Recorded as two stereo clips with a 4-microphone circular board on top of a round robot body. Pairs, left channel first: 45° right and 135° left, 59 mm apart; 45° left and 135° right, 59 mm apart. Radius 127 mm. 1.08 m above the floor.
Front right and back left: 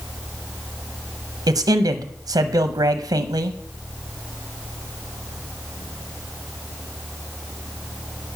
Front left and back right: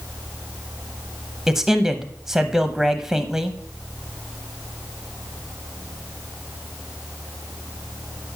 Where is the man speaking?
140° left, 0.8 m.